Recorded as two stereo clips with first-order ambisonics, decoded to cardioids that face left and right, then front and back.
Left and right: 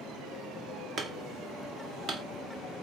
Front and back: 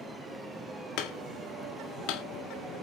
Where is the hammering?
30° right, 1.8 m.